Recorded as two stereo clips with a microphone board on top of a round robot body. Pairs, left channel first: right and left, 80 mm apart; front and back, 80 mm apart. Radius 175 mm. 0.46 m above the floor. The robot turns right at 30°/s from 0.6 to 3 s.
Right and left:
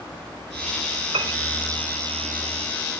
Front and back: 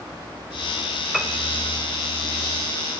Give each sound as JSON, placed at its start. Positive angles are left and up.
{"t": 1.1, "sound": "a piano", "azimuth_deg": 95, "distance_m": 1.3}